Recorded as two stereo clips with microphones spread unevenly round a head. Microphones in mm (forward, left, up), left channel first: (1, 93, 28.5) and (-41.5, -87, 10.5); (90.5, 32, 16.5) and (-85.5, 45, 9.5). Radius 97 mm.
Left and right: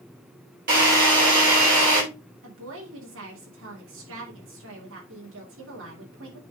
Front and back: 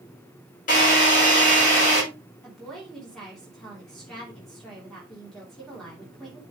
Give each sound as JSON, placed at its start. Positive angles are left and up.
{"t": 0.7, "sound": "a drill", "azimuth_deg": -55, "distance_m": 6.5}
{"t": 2.4, "sound": "a woman speaking", "azimuth_deg": -90, "distance_m": 2.5}